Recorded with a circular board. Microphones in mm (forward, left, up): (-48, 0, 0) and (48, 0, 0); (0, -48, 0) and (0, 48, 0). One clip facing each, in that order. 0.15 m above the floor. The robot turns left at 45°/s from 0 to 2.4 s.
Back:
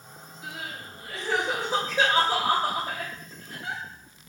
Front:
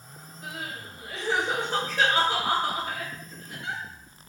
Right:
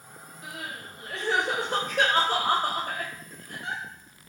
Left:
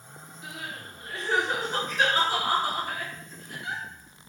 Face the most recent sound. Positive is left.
turn(degrees=-130)